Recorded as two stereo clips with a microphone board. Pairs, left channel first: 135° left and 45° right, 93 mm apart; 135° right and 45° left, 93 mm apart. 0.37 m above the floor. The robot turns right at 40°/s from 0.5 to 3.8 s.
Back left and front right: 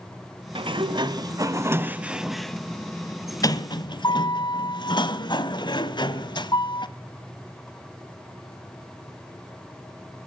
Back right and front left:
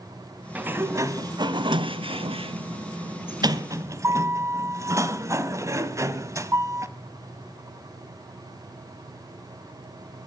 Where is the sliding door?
30° right, 0.9 m; by 6.9 s 100° left, 0.9 m.